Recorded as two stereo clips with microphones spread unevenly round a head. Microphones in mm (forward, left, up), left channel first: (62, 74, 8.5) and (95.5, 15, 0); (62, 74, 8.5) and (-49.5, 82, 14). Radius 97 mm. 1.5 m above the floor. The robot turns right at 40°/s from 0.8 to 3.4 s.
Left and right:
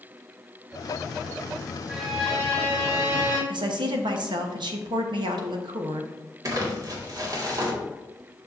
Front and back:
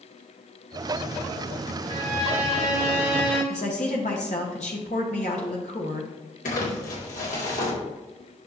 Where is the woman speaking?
60° right, 1.0 m.